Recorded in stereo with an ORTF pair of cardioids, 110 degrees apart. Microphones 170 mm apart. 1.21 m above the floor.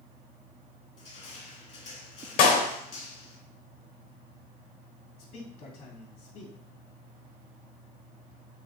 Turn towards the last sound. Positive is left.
turn(degrees=60)